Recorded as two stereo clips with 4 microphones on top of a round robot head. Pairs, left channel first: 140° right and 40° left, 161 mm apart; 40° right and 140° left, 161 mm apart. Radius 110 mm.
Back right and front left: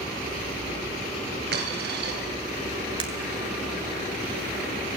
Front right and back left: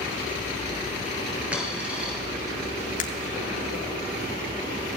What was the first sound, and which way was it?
A dropped coin, 60° left.